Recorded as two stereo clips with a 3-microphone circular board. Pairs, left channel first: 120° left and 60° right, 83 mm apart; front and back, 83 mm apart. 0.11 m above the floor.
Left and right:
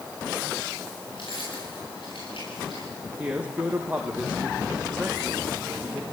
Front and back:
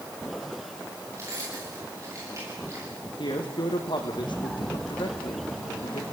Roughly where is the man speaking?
Ahead.